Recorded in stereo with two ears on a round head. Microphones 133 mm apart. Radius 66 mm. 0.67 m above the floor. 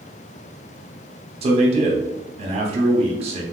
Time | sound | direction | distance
1.4 | a man speaking | 40° right (ahead or behind) | 0.8 m